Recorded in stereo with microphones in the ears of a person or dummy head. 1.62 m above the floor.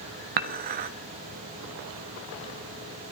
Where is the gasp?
No gasp in this recording.